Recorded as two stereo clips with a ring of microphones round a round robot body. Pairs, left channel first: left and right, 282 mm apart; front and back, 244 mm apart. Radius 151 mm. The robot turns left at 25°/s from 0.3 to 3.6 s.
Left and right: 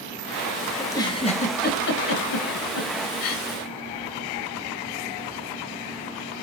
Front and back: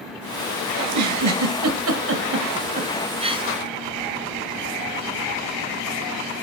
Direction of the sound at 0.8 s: 170° left.